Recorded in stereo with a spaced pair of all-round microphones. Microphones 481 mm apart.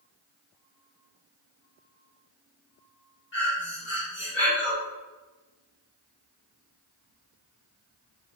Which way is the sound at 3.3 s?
60° left (ahead or behind).